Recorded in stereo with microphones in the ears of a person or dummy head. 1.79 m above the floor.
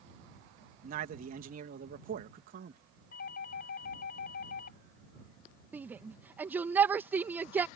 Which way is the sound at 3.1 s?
60° left (ahead or behind).